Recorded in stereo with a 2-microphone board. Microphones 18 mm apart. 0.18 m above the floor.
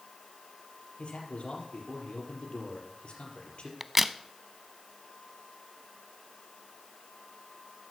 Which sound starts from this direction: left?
A man speaking, at 1.0 s.